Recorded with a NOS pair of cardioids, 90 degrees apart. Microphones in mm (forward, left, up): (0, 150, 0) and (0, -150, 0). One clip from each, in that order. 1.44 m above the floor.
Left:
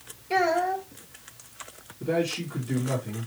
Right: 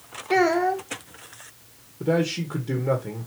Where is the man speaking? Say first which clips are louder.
Right 3 dB; 70° right, 1.7 m.